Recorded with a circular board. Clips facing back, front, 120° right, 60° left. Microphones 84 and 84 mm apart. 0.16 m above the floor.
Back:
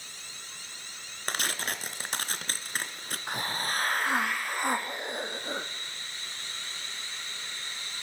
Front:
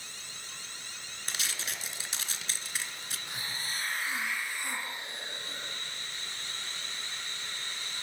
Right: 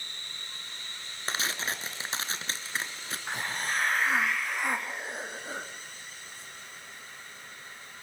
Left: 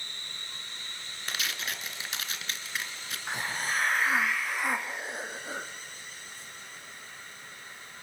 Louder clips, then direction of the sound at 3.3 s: Back 9 dB, left 1 dB; 150° left.